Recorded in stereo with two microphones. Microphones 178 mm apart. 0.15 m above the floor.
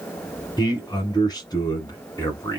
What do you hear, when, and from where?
0.6 s a man speaking: 25° left (ahead or behind), 1.1 m